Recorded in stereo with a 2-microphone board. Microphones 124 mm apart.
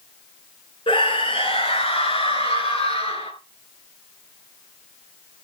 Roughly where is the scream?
Left.